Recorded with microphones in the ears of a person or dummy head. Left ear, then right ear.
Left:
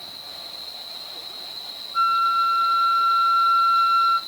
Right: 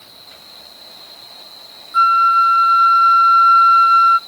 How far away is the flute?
About 0.6 m.